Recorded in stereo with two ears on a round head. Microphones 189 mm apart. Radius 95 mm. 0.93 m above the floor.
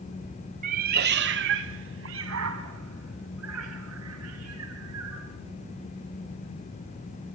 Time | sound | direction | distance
0.6 | a cat meowing | 35° right (ahead or behind) | 1.0 m